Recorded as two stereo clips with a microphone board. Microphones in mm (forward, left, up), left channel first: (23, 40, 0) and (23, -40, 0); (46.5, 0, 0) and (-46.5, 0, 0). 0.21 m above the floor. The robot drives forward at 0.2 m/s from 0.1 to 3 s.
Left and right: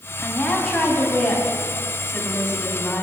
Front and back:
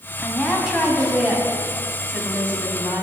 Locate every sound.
0.2 s a woman speaking: 80° left, 1.1 m; by 3.0 s 130° left, 1.2 m